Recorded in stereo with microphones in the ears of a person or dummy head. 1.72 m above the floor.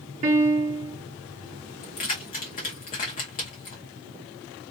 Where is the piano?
35° right (ahead or behind), 0.8 m.